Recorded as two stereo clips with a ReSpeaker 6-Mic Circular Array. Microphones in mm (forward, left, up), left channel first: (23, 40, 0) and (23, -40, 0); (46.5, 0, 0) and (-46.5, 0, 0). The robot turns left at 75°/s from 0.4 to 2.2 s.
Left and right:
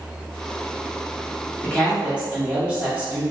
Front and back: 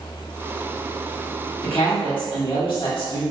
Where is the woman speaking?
20° left, 1.7 m; by 3.2 s 20° right, 1.7 m.